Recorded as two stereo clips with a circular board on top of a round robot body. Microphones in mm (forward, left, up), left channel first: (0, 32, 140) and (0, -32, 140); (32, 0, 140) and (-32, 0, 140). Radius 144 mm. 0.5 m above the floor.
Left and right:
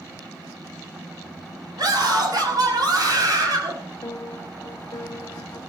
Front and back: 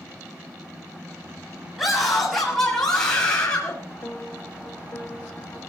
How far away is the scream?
About 6 m.